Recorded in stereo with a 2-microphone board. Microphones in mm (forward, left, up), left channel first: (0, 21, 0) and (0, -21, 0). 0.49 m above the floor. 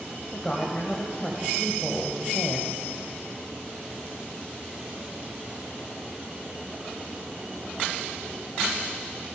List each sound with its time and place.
0.3 s a woman speaking: 25° left (ahead or behind), 2.5 m